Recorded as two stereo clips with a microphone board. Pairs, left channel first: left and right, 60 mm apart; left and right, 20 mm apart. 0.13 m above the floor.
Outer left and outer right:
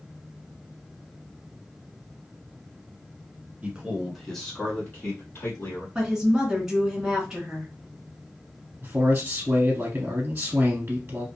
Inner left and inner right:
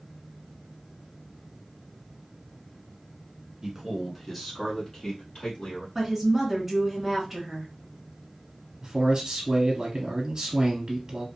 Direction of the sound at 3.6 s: 20° right (ahead or behind).